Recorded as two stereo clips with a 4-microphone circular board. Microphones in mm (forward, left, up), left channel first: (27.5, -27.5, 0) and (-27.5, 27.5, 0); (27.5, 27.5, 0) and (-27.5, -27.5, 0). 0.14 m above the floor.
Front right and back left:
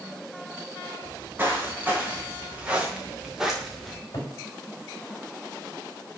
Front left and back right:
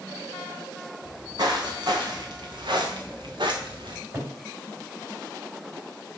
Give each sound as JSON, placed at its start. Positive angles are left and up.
{"t": 1.0, "sound": "footsteps", "azimuth_deg": -160, "distance_m": 2.5}
{"t": 3.9, "sound": "a cupboard door", "azimuth_deg": -80, "distance_m": 3.5}